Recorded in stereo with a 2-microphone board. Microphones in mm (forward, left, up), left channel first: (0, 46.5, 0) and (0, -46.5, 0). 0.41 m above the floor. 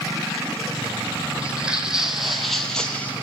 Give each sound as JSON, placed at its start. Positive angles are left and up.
{"t": 1.4, "sound": "footsteps", "side_deg": -10, "distance_m": 1.3}